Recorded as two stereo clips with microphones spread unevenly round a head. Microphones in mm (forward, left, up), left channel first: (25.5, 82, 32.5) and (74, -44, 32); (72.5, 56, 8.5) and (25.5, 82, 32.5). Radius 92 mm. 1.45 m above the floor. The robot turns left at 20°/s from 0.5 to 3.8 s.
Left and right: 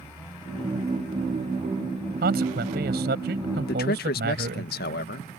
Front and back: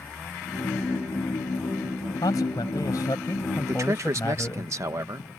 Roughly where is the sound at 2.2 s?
Ahead right.